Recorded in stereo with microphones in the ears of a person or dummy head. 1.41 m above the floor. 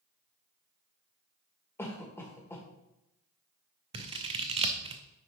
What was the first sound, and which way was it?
A cough, 5° left (ahead or behind).